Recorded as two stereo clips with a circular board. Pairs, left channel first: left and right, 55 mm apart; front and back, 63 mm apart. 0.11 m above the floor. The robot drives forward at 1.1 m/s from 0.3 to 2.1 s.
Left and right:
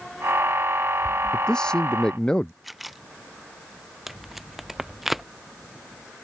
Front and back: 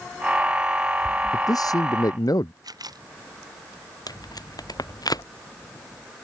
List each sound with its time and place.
1.3 s a man speaking: 15° left
2.6 s a camera shutter: straight behind
4.1 s tape being pulled: 5° right